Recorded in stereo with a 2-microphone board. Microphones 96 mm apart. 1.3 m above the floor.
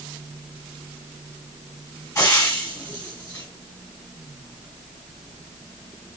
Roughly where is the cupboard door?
No cupboard door in this recording.